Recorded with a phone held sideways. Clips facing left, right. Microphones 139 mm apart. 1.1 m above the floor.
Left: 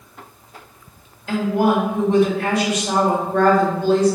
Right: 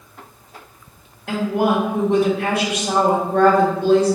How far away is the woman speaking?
About 1.7 m.